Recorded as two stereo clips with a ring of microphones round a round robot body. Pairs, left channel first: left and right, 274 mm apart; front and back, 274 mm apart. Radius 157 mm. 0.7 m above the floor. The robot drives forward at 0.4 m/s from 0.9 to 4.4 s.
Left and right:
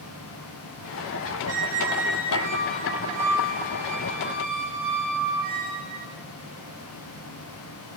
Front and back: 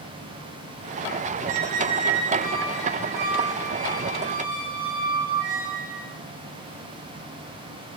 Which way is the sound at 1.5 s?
135° right.